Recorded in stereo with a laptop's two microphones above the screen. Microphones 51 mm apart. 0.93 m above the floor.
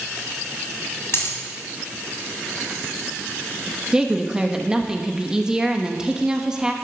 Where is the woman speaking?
15° right (ahead or behind), 1.2 m.